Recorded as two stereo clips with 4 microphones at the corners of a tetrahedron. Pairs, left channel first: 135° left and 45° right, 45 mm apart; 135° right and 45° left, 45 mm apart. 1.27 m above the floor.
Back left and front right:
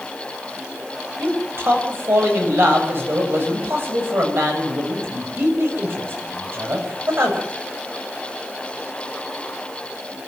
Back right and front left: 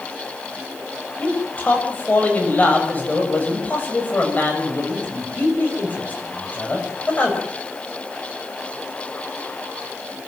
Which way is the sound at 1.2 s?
80° right.